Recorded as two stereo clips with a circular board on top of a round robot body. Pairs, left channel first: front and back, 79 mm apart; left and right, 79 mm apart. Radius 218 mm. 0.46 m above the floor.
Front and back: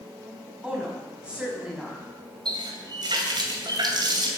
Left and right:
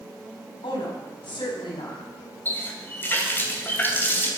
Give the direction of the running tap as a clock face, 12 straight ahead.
7 o'clock.